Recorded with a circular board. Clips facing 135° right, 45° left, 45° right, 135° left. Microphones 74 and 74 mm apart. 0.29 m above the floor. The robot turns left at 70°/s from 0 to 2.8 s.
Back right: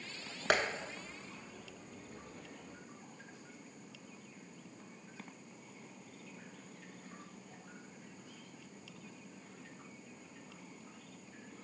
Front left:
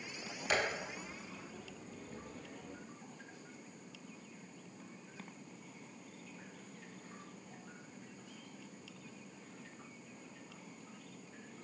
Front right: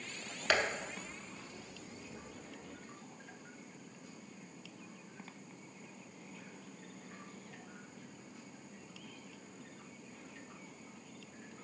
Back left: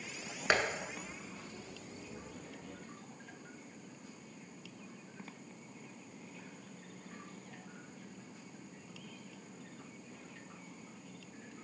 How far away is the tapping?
About 0.6 m.